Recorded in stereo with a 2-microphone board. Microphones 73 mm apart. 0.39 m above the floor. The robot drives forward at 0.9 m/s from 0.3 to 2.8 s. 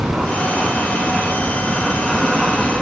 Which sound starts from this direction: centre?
An aircraft, at 0.0 s.